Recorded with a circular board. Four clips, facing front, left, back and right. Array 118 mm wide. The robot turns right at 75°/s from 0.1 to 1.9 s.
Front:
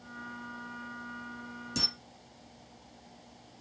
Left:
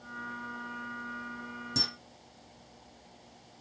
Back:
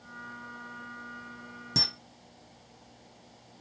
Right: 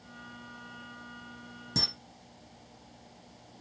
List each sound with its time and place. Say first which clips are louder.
1.8 s a camera shutter: right 1 dB, back 3 dB; 170° right, 0.9 m; by 1.9 s 160° right, 0.9 m